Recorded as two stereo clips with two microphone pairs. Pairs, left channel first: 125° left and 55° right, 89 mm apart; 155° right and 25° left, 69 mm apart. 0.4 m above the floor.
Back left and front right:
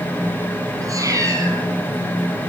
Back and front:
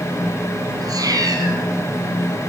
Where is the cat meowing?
5° right, 5 m.